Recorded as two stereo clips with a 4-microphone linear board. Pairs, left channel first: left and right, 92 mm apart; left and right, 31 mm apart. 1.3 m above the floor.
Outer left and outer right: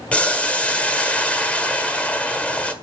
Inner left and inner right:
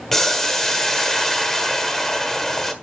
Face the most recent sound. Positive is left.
turn(degrees=15)  # may be behind; listen again after turning